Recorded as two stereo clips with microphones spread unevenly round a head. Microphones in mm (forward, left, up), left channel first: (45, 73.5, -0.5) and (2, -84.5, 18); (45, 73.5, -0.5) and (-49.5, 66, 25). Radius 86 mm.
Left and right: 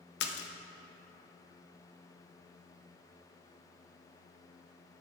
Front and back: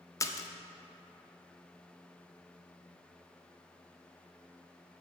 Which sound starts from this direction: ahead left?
A splash, at 0.2 s.